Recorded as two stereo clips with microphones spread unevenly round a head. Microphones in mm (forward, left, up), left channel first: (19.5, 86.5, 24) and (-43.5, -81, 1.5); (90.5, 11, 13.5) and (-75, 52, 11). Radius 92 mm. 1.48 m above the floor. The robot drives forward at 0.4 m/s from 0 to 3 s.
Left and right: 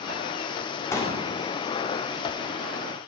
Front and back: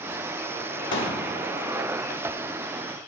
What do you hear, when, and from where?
0.9 s a pop: 5° right, 2.5 m